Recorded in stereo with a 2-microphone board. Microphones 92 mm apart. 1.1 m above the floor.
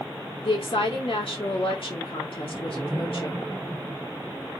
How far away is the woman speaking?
About 1.8 m.